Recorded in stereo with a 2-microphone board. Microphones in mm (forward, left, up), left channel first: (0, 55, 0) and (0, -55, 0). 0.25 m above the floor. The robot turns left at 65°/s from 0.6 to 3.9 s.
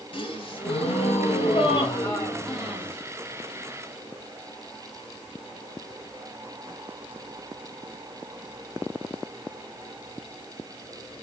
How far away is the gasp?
About 4.5 m.